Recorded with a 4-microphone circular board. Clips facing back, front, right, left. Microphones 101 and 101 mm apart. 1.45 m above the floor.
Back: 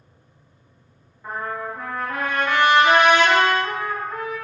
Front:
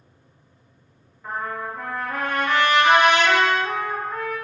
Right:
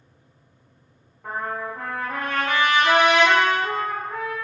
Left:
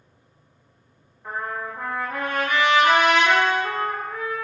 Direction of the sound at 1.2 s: 95° right.